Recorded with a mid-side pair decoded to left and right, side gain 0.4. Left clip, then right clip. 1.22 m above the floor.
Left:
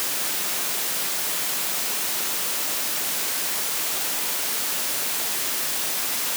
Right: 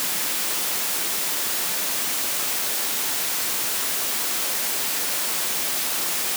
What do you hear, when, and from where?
Only background noise.